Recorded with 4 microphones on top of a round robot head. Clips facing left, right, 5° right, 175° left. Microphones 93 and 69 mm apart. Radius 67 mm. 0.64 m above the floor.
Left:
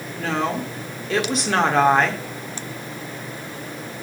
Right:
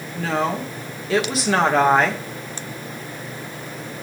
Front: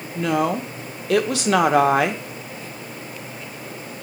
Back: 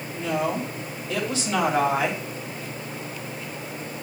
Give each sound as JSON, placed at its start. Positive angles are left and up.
{"t": 0.1, "sound": "a woman speaking", "azimuth_deg": -5, "distance_m": 1.7}